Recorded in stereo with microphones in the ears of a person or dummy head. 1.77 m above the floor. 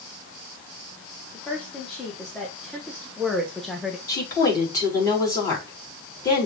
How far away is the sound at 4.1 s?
About 4.5 m.